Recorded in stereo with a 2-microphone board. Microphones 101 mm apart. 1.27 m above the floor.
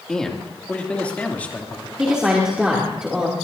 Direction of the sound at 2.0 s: 10° right (ahead or behind).